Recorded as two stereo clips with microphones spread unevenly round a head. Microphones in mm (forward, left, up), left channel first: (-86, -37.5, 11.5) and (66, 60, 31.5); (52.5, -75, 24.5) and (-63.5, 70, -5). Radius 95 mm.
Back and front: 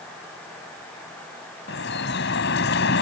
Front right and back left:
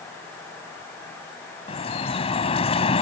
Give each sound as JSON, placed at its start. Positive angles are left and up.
{"t": 1.7, "sound": "dripping", "azimuth_deg": -110}